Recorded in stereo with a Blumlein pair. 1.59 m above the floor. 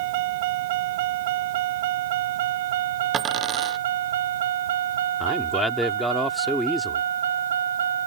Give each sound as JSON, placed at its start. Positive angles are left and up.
{"t": 0.0, "sound": "a vehicle", "azimuth_deg": -50}
{"t": 3.1, "sound": "a dropped coin", "azimuth_deg": -25}
{"t": 5.2, "sound": "a man speaking", "azimuth_deg": 0}